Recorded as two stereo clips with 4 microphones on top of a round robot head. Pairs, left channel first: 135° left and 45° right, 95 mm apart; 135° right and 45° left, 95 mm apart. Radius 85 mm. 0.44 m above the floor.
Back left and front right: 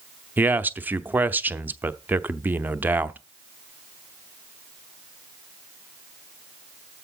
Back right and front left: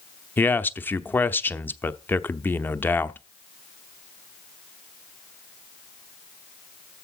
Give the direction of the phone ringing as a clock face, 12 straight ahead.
I don't hear a phone ringing.